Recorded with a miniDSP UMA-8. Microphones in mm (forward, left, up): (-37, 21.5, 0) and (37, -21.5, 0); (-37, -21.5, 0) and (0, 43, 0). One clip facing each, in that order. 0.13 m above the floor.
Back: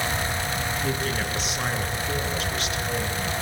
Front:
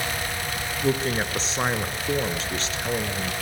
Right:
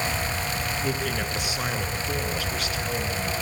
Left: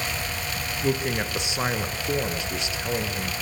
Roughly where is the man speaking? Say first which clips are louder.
Front 3 dB, left 7 dB; ahead.